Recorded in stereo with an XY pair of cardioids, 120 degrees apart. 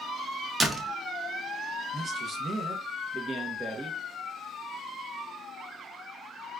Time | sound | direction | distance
0.6 | a door slam | 30° right | 0.6 m
1.9 | a man speaking | 35° right | 0.8 m